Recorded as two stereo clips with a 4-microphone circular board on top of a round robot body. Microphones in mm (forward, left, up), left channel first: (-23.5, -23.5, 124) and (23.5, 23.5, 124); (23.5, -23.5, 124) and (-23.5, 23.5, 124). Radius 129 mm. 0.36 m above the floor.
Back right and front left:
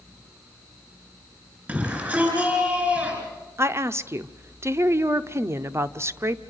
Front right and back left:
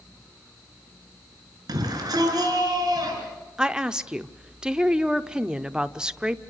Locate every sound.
1.7 s a shout: 110° left, 5 m
3.6 s a woman speaking: 60° left, 1.0 m